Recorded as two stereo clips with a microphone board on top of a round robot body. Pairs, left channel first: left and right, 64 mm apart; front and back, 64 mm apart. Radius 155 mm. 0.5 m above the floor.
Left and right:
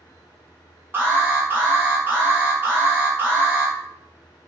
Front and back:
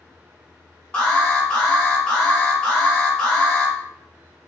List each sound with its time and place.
0.9 s an alarm: 55° right, 1.6 m